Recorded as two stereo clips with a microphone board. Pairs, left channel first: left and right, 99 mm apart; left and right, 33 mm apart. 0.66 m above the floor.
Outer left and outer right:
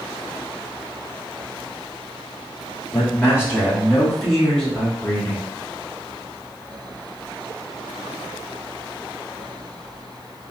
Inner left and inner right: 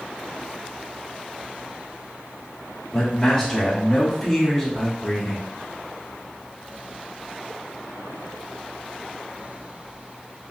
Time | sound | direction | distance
2.9 | a man speaking | 30° left (ahead or behind) | 1.4 m